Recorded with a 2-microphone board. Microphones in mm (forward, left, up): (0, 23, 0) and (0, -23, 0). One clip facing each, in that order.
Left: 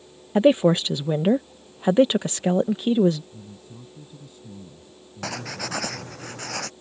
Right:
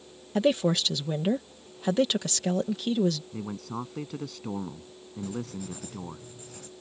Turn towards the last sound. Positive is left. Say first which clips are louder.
# left 4 dB
turn(degrees=75)  # may be behind; listen again after turning